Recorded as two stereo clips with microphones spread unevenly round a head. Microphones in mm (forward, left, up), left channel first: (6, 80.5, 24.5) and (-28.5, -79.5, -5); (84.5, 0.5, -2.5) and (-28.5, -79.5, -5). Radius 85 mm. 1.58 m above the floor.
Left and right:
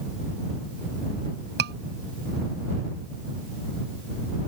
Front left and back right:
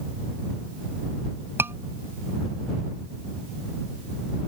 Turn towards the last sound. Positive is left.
turn(degrees=-70)